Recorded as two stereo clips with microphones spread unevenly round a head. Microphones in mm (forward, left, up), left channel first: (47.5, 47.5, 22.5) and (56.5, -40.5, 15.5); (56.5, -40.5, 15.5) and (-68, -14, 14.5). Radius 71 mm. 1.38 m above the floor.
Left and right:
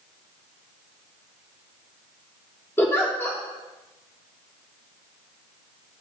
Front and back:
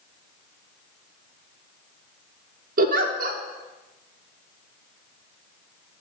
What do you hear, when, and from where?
2.8 s a giggle: 170° left, 0.7 m